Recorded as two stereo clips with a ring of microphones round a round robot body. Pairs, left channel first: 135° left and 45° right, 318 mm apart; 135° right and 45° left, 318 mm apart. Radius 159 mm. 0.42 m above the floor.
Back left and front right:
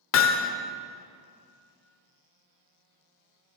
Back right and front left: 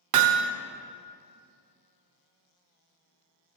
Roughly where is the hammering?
Left.